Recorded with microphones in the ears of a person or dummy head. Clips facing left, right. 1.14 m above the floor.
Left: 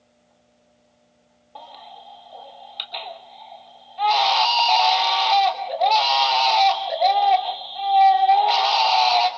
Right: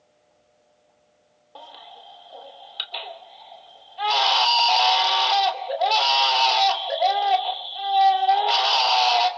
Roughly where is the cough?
I don't hear a cough.